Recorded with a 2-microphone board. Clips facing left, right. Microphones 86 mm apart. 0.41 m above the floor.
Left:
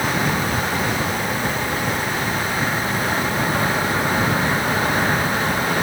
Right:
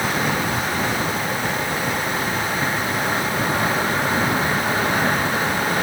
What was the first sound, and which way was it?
Only background noise.